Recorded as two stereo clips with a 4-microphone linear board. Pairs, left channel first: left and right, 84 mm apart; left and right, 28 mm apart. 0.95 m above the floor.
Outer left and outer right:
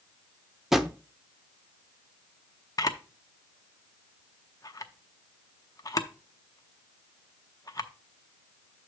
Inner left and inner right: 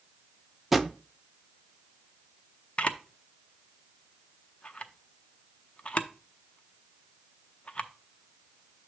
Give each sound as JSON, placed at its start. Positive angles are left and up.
{"t": 0.7, "sound": "a drawer", "side_deg": -5, "distance_m": 0.6}
{"t": 2.8, "sound": "a camera shutter", "side_deg": 45, "distance_m": 0.7}